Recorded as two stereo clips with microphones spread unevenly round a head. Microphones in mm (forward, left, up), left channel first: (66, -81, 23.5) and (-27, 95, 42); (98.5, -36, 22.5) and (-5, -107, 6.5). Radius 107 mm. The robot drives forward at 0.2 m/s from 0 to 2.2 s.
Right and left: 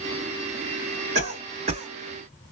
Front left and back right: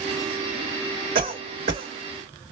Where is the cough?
Straight behind, 2 m.